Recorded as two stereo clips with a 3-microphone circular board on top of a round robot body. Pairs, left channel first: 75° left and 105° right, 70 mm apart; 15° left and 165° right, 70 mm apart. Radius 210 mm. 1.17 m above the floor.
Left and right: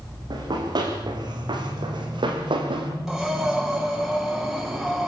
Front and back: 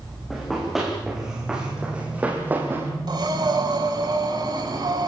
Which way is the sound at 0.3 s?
75° right.